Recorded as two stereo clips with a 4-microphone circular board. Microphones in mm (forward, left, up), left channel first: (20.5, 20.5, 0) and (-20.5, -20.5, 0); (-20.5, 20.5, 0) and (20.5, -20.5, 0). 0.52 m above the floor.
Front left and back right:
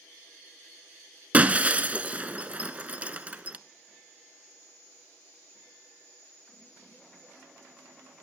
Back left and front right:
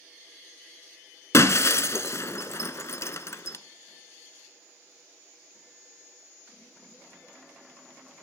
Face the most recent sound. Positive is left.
turn(degrees=160)